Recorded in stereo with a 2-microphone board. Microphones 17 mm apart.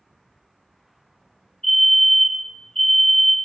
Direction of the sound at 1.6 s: 65° left (ahead or behind).